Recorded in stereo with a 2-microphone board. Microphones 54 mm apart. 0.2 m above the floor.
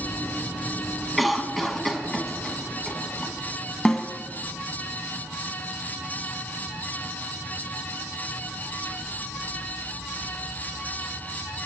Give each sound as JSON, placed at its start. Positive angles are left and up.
{"t": 1.2, "sound": "a cough", "side_deg": 0, "distance_m": 1.8}
{"t": 3.9, "sound": "a snare drum", "side_deg": 10, "distance_m": 1.4}